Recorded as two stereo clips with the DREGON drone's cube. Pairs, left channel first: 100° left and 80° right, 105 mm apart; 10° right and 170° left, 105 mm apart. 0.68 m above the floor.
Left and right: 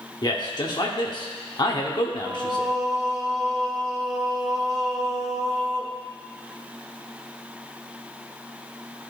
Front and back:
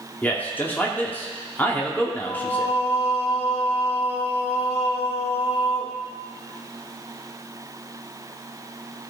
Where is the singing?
5° left, 1.1 m.